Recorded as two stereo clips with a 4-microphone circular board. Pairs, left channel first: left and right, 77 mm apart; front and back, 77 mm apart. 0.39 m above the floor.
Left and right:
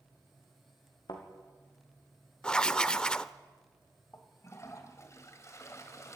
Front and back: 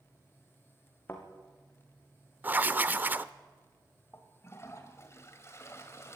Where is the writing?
155° left, 0.6 m.